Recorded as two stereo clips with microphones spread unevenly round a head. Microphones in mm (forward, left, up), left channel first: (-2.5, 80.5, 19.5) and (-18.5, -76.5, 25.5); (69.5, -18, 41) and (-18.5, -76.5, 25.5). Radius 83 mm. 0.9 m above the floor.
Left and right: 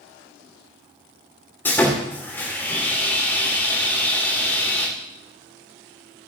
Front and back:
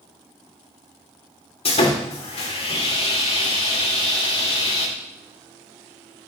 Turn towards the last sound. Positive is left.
turn(degrees=5)